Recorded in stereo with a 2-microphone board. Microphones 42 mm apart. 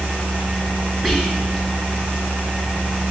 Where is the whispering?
5° left (ahead or behind), 1.8 m.